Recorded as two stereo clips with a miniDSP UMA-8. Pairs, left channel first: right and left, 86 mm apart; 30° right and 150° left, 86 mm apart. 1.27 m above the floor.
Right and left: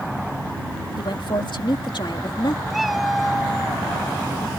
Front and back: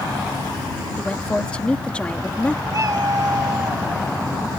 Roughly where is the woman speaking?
Right.